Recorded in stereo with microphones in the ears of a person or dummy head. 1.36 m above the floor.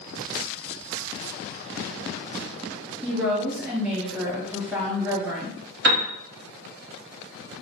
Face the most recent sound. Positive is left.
turn(degrees=-60)  # may be behind; listen again after turning